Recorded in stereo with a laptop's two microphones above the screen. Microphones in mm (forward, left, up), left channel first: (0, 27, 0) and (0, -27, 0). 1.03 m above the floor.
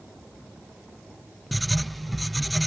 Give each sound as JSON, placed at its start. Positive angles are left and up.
{"t": 1.5, "sound": "writing", "side_deg": 0}